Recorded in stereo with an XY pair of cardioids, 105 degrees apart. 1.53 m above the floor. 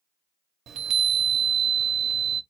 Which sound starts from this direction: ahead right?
A chime, at 0.7 s.